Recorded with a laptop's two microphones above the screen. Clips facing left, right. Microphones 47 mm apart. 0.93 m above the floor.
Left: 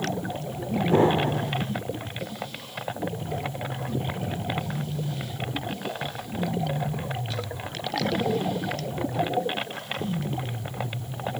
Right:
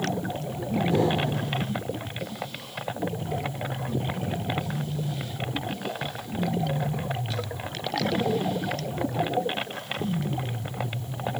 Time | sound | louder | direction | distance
0.9 | an explosion | left 6 dB | 35° left (ahead or behind) | 1.0 m